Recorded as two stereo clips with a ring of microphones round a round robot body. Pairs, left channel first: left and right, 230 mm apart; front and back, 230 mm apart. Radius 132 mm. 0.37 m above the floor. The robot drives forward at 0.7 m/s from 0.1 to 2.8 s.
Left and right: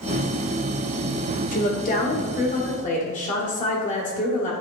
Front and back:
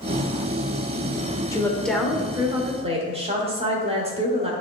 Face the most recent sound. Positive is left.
turn(degrees=130)